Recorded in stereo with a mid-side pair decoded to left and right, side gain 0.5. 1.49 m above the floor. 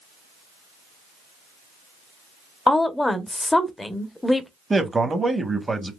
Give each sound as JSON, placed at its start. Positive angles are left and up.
{"t": 2.7, "sound": "a woman speaking", "azimuth_deg": 15, "distance_m": 1.0}
{"t": 4.7, "sound": "a man speaking", "azimuth_deg": -20, "distance_m": 1.2}